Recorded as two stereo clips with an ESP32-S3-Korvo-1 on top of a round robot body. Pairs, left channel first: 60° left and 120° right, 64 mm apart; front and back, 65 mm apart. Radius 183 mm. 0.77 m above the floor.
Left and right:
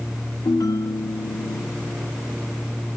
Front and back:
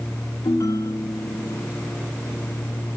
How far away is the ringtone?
About 1.4 m.